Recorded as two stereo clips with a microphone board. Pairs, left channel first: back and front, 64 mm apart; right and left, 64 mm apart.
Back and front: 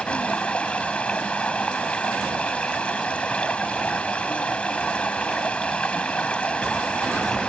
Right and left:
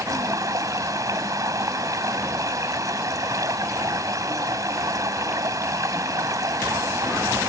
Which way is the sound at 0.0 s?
110° left.